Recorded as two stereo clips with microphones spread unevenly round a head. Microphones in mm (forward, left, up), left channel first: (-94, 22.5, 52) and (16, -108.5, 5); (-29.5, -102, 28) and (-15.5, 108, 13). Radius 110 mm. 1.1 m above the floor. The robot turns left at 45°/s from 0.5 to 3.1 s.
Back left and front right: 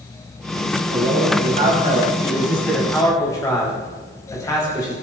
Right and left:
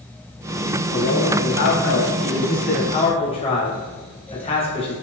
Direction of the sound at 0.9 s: 60° right.